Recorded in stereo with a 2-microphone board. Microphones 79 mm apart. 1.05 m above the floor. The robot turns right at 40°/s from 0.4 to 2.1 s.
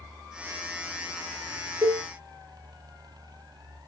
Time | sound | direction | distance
1.8 | a cowbell | 45° right (ahead or behind) | 0.6 m